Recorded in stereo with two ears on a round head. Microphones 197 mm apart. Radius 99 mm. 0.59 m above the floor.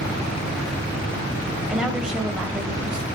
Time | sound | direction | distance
1.7 | a woman speaking | 5° right (ahead or behind) | 3.5 m